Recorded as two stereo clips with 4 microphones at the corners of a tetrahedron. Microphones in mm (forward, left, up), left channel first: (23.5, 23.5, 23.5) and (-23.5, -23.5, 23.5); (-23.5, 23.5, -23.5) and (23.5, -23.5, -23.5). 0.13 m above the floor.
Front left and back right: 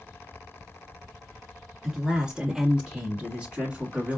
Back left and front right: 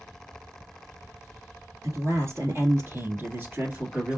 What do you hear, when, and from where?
1.8 s a man speaking: 55° right, 2.5 m; by 4.2 s 95° right, 1.8 m